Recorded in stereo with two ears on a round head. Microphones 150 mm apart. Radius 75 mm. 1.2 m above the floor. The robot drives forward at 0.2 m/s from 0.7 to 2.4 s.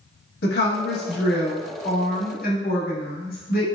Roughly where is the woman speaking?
Left.